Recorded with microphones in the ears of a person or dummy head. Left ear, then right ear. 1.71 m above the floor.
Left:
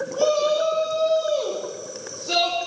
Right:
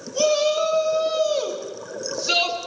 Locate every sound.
0.1 s a shout: 65° right (ahead or behind), 5.5 m